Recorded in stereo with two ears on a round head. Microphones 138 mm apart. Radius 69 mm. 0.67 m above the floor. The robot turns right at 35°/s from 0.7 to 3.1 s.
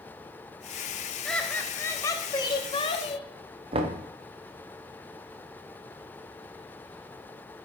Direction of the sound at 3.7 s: 35° right (ahead or behind).